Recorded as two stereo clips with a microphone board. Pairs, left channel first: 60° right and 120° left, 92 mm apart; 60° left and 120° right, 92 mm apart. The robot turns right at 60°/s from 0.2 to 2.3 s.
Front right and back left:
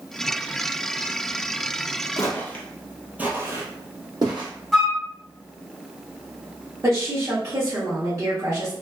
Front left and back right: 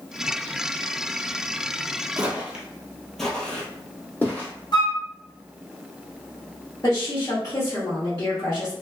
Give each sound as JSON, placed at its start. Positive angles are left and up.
{"t": 2.2, "sound": "footsteps", "azimuth_deg": -75, "distance_m": 0.9}
{"t": 4.7, "sound": "a flute", "azimuth_deg": 35, "distance_m": 0.8}
{"t": 6.8, "sound": "a woman speaking", "azimuth_deg": 90, "distance_m": 1.0}